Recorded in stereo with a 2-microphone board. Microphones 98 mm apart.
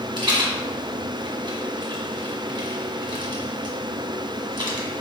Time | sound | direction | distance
0.2 | a rattle | 50° right (ahead or behind) | 1.3 m